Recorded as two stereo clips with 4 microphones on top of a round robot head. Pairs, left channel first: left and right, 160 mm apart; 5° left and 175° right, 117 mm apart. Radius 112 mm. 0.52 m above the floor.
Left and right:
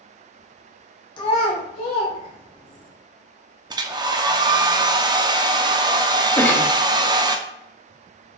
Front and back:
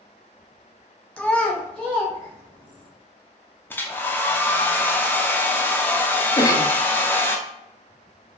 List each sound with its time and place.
1.2 s a child speaking: 75° left, 0.6 m; by 2.9 s 90° left, 1.8 m
3.7 s a hair dryer: 55° right, 0.6 m
6.4 s a cough: 20° left, 0.7 m